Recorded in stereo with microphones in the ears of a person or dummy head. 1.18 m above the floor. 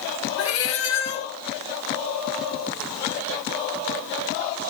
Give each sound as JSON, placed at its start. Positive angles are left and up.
{"t": 0.4, "sound": "a cat meowing", "side_deg": 65, "distance_m": 3.5}